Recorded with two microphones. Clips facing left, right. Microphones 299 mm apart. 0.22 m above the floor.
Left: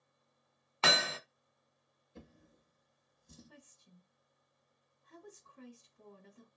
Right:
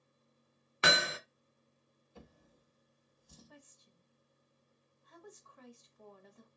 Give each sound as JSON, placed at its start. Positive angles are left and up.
{"t": 0.8, "sound": "hammering", "side_deg": -20, "distance_m": 0.5}
{"t": 2.1, "sound": "a drawer", "side_deg": 25, "distance_m": 0.9}
{"t": 3.5, "sound": "a woman speaking", "side_deg": 35, "distance_m": 1.2}